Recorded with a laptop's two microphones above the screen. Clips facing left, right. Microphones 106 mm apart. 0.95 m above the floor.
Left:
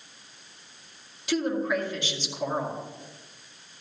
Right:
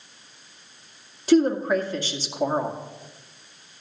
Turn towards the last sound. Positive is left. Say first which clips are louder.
# right 8 dB
turn(degrees=-35)  # may be behind; listen again after turning